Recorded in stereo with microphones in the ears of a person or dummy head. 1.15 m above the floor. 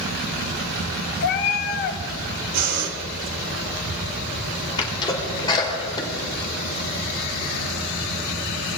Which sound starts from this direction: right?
Breathing, at 2.5 s.